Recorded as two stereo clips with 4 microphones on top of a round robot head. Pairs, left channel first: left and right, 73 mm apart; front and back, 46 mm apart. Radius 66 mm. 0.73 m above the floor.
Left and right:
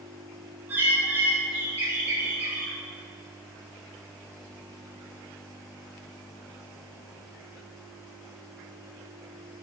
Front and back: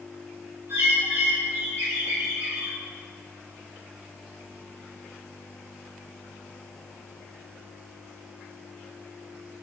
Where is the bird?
150° right, 2.5 m.